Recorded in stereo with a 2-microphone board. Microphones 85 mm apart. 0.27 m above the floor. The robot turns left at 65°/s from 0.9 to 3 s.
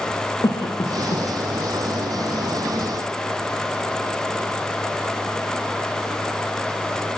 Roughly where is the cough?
Left.